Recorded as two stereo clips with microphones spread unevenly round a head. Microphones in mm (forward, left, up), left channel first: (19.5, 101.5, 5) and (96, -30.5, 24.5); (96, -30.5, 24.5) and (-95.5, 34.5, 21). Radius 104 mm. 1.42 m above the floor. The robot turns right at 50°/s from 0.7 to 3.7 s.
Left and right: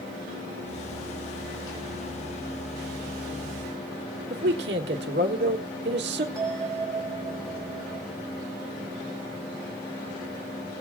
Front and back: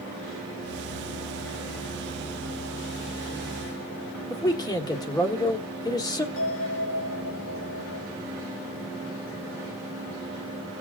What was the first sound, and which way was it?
A man speaking, 90° right.